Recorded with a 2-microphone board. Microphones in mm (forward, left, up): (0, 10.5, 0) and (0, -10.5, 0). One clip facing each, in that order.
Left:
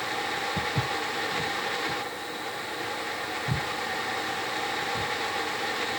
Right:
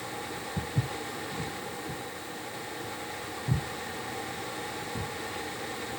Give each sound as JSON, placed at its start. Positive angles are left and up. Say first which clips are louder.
{"t": 0.6, "sound": "footsteps", "louder": "left 6 dB", "side_deg": 70, "distance_m": 1.4}